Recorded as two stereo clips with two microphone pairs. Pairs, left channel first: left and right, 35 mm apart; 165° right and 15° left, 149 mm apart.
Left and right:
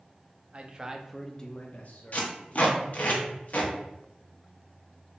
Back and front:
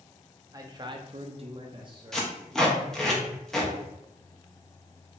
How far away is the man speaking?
About 0.6 m.